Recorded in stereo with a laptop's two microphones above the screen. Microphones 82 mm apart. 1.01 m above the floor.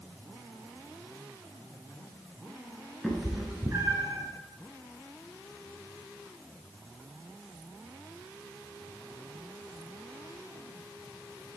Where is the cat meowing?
5° left (ahead or behind), 1.0 m; by 4.2 s 50° right (ahead or behind), 1.4 m.